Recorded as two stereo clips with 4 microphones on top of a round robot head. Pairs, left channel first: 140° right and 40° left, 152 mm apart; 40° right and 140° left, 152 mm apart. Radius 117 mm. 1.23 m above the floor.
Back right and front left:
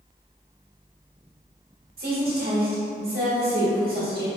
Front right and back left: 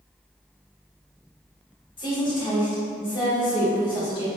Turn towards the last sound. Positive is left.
turn(degrees=20)